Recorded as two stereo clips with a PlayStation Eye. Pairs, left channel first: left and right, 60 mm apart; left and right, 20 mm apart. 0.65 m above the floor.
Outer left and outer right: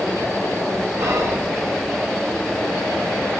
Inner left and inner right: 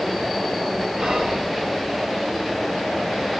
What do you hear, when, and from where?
1.0 s whispering: 60° right (ahead or behind), 1.8 m